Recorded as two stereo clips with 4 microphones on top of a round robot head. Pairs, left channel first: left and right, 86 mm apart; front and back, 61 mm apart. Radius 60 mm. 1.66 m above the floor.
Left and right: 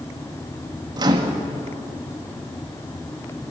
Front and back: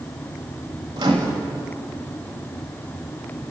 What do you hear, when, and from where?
1.0 s a microwave: 130° right, 2.0 m